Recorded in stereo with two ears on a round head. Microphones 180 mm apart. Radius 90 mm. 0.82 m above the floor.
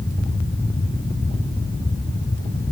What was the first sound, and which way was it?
Only background noise.